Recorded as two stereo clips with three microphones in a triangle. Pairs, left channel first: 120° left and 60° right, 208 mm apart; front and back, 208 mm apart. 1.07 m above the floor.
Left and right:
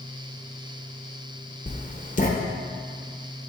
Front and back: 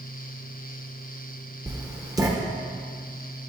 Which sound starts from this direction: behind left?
Writing, at 1.7 s.